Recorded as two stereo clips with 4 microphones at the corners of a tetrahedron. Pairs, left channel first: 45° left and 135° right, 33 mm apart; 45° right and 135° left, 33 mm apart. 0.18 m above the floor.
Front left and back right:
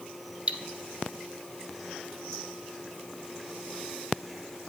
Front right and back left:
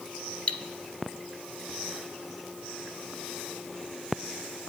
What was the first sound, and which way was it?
Cutlery clinking, 90° right.